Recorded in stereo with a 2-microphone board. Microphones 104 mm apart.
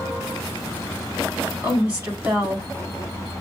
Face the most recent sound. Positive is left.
turn(degrees=-15)  # may be behind; listen again after turning